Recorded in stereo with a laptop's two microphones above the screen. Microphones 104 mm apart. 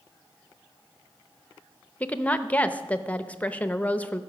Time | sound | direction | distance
2.0 | a woman speaking | 15° left (ahead or behind) | 0.7 m